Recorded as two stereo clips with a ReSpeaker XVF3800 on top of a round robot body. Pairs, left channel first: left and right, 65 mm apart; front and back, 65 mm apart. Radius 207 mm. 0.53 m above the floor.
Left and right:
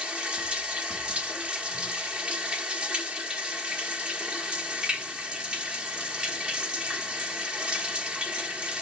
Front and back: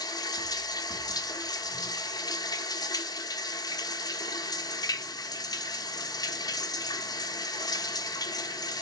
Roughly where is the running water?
Ahead.